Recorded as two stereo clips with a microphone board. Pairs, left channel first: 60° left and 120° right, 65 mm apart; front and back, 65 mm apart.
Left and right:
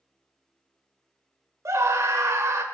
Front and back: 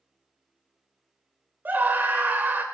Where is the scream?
130° right, 2.0 m.